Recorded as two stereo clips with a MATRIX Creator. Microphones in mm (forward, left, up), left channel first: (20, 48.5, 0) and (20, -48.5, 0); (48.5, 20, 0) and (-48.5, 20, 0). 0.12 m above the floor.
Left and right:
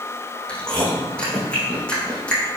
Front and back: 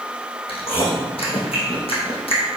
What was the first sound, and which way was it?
Chewing, 10° left.